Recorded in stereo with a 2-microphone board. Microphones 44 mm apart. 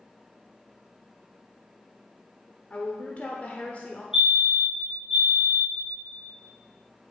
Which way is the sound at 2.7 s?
35° left (ahead or behind).